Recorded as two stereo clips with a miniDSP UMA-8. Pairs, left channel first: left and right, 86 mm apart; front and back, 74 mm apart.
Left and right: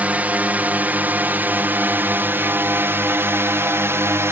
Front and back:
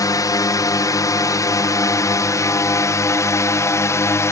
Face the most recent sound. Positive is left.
turn(degrees=-40)